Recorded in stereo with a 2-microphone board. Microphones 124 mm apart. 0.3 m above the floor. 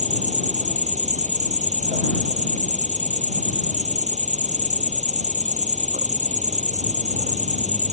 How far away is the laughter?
I don't hear laughter.